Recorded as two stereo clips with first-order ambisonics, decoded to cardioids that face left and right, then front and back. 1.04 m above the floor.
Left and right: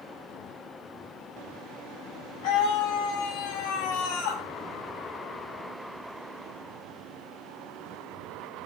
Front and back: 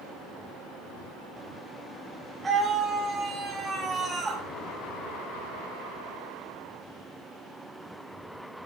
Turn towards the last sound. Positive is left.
turn(degrees=105)